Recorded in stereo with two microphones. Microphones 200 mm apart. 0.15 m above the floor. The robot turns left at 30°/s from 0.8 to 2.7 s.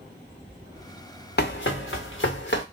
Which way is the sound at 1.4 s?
55° left (ahead or behind).